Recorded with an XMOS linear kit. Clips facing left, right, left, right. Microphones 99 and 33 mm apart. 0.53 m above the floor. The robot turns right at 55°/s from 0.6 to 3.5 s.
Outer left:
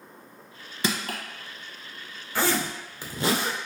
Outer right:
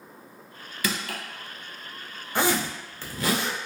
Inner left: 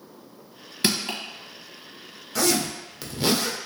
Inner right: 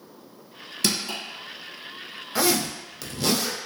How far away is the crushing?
About 0.7 m.